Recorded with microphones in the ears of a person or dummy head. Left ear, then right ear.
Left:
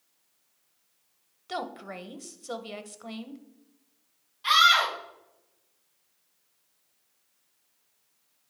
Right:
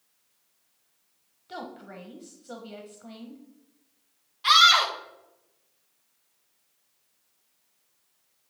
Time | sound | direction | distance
1.5 | a woman speaking | 45° left (ahead or behind) | 1.0 m
4.4 | a scream | 20° right (ahead or behind) | 2 m